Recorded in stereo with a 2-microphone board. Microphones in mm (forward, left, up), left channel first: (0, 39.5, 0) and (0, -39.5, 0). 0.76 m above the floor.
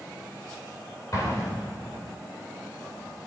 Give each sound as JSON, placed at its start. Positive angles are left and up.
{"t": 1.1, "sound": "an explosion", "side_deg": 45, "distance_m": 3.0}